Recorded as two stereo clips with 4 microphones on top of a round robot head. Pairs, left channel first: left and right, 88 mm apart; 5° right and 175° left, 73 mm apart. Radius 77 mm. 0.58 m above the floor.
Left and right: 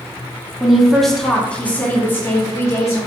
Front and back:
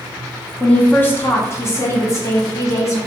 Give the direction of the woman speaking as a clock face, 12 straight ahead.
1 o'clock.